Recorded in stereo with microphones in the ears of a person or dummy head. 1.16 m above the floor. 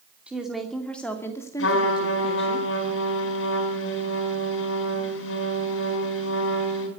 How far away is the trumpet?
About 4 m.